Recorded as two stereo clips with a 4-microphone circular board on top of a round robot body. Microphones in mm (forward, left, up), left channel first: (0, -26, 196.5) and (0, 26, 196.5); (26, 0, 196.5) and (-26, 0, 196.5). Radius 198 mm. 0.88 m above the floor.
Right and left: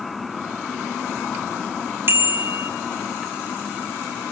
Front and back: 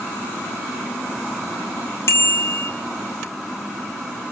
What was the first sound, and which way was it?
A bicycle bell, 40° left.